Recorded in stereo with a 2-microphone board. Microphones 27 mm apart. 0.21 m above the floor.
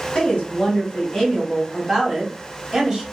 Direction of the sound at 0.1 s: 45° left (ahead or behind).